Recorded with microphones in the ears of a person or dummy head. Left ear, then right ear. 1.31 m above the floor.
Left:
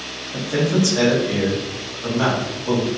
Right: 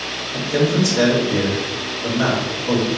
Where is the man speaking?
55° left (ahead or behind), 1.9 m.